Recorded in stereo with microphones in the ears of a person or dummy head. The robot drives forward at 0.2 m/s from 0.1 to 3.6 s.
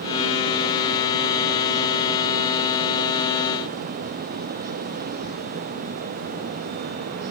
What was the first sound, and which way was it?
Only background noise.